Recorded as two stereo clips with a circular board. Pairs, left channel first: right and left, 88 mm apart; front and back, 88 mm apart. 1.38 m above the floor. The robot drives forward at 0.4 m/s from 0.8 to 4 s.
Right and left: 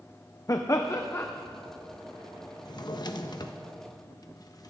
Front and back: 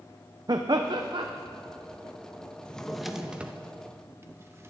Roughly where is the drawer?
Right.